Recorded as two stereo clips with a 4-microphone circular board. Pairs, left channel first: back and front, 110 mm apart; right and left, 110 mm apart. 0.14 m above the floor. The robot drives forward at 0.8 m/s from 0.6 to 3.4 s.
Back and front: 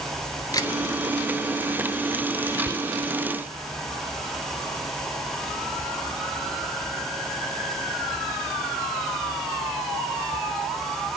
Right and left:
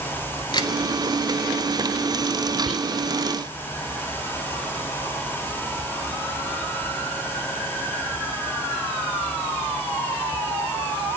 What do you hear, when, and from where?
0.5 s a camera shutter: 130° right, 1.3 m; by 0.7 s 135° right, 1.3 m
2.7 s whispering: 5° right, 1.3 m; by 3.0 s 10° right, 1.2 m